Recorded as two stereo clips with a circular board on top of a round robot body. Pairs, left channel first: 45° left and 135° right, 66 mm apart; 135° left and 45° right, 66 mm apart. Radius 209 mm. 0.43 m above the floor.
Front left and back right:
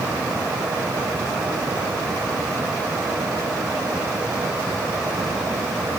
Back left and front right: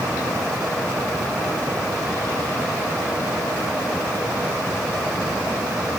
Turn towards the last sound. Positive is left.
No sound to turn to.